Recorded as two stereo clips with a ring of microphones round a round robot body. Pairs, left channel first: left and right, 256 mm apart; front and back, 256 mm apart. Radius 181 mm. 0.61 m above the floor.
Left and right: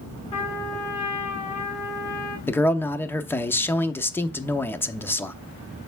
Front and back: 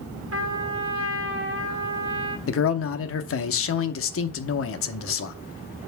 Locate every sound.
0.3 s a trumpet: 160° left, 1.5 m
2.5 s a man speaking: 10° left, 0.9 m